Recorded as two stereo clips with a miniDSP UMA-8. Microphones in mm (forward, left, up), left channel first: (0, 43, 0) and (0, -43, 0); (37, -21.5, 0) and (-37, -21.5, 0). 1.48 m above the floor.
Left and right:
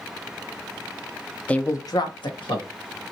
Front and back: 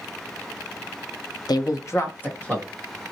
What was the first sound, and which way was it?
A man speaking, 15° left.